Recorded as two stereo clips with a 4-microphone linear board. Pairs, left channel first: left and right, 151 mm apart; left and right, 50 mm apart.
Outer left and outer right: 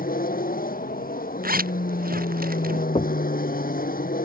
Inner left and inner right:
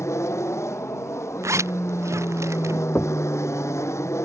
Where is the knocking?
40° left (ahead or behind).